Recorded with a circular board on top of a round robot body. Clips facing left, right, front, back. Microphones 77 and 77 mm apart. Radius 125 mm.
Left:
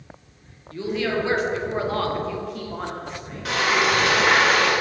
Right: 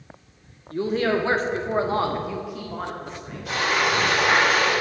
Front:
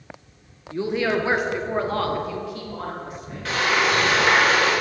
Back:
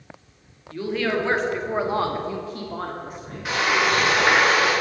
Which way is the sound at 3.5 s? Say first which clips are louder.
Left 2 dB, even; 105° left.